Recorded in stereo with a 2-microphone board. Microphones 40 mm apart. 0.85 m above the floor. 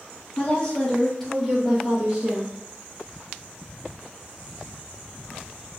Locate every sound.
0.4 s a woman speaking: 25° left (ahead or behind), 1.2 m; by 2.5 s 35° right (ahead or behind), 0.9 m